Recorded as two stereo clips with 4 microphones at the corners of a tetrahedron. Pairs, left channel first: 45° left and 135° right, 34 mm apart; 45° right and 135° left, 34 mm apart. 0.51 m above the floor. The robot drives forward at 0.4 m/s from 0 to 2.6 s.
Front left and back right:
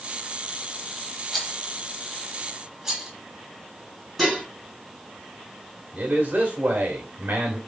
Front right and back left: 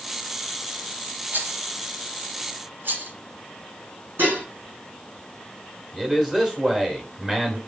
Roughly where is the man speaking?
Behind.